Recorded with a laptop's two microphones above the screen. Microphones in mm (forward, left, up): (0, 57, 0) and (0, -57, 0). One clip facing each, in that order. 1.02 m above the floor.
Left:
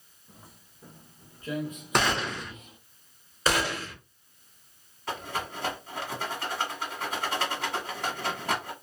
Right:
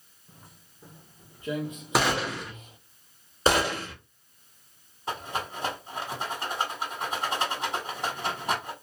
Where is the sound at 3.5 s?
30° right (ahead or behind), 1.5 m.